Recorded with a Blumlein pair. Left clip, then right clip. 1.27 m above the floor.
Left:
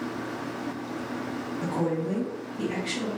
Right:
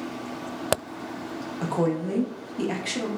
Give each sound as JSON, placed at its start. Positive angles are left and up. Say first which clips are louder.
{"t": 1.6, "sound": "a woman speaking", "louder": "right 3 dB", "azimuth_deg": -65, "distance_m": 0.8}